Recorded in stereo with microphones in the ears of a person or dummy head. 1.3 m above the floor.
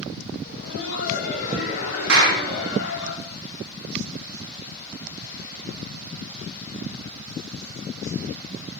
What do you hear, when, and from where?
0.5 s laughter: 50° left (ahead or behind), 1.2 m; by 3.1 s 65° left (ahead or behind), 4 m
2.1 s a clap: 85° right, 3 m